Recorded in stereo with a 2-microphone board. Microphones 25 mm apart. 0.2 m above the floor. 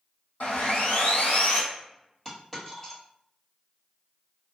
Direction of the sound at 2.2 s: 15° left (ahead or behind).